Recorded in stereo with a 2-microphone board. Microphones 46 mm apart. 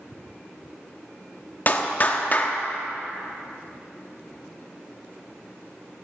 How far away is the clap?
About 1.1 m.